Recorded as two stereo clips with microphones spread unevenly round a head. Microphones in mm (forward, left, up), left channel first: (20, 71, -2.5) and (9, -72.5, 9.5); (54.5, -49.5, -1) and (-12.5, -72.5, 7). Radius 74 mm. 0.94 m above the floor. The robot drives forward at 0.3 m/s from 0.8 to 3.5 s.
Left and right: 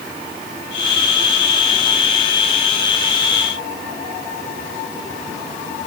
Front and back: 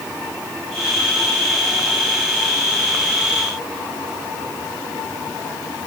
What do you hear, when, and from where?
Only background noise.